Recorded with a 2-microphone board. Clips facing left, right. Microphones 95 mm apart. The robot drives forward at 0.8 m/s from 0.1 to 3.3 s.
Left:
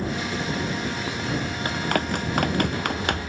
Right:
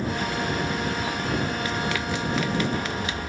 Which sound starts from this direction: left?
Running footsteps, at 1.6 s.